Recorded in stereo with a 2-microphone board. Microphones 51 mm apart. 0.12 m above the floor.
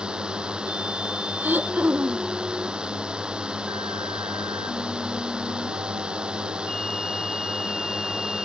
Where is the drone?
15° right (ahead or behind).